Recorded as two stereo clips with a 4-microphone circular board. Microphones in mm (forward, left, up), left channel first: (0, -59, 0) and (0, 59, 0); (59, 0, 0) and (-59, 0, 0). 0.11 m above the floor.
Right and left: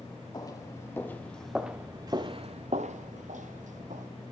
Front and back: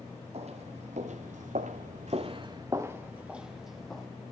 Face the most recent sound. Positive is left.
turn(degrees=85)